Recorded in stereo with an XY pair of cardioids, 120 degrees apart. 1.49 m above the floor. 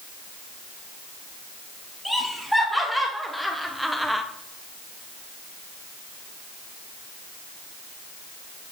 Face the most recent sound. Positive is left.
turn(degrees=0)